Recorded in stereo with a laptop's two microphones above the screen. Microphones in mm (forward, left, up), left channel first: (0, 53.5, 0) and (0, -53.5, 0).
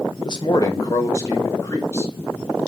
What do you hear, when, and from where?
0.2 s a man speaking: 45° left (ahead or behind), 0.6 m; by 2.1 s 25° left (ahead or behind), 1.7 m